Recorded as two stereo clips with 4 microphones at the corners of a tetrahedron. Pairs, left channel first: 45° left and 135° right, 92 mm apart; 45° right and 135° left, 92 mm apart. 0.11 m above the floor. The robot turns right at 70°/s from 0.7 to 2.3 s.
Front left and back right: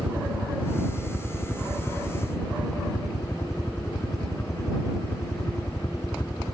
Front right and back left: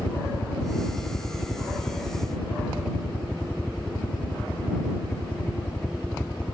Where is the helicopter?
85° right; by 6.5 s 25° left.